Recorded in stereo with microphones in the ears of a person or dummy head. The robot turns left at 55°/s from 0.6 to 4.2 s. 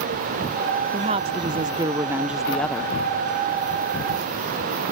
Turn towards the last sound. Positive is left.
turn(degrees=90)